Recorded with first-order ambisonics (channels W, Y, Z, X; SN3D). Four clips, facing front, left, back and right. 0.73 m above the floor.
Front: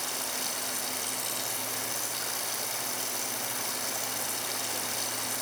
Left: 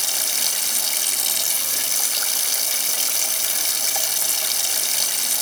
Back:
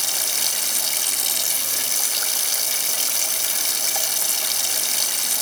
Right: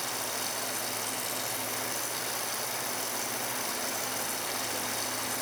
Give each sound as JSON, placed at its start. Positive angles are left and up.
{"t": 0.0, "sound": "running water", "azimuth_deg": 130, "distance_m": 2.0}